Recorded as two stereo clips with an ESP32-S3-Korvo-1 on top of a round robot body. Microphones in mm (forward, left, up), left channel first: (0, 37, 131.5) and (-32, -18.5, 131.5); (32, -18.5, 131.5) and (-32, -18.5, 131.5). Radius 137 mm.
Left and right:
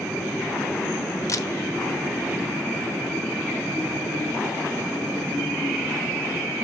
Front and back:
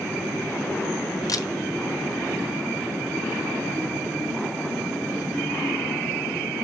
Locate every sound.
1.3 s a camera shutter: 30° left, 1.1 m